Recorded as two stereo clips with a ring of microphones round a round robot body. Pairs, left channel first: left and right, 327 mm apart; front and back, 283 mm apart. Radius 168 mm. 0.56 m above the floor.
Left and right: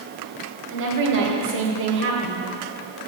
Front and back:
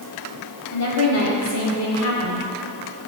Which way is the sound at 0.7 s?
40° right.